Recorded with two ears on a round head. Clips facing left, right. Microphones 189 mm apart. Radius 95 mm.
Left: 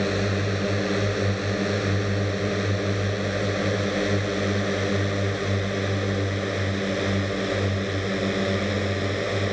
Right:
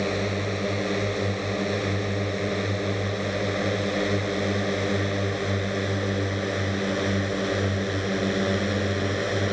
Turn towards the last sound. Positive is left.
turn(degrees=-5)  # may be behind; listen again after turning